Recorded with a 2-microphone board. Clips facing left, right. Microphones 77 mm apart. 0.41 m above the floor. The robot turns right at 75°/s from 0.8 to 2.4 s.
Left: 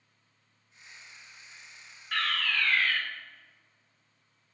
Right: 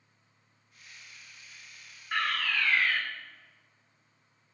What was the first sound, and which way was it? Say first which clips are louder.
A fire alarm: right 1 dB; 15° right (ahead or behind).